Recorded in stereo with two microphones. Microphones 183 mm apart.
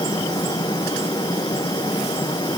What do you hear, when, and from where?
Only background noise.